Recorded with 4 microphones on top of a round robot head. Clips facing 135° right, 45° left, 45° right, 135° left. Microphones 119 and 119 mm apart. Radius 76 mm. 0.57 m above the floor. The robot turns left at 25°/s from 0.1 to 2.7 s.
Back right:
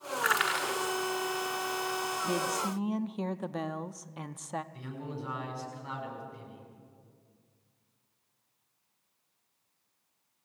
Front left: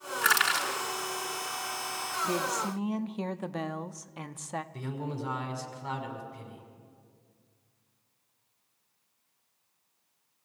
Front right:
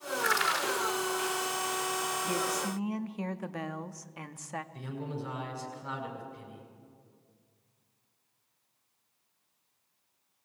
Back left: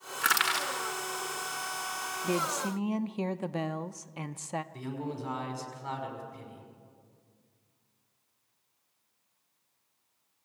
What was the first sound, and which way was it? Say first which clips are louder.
Crushing: front left 2 dB, even; 105° left.